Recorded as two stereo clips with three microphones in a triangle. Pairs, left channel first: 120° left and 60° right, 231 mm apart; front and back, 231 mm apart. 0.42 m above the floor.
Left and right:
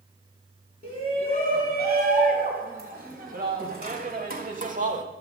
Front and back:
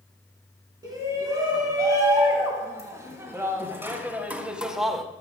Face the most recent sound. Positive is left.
turn(degrees=-85)